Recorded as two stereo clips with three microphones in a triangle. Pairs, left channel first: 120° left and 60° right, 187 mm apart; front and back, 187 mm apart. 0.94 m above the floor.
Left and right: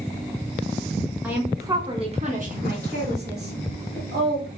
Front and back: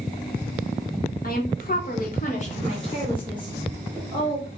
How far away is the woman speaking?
About 1.0 m.